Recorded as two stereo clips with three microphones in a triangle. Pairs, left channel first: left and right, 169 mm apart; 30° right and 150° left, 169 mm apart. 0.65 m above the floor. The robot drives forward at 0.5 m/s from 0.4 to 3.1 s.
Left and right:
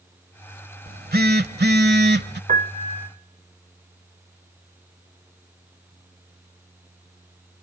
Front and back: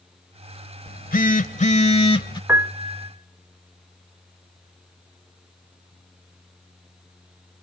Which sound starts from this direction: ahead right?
A phone buzzing, at 0.9 s.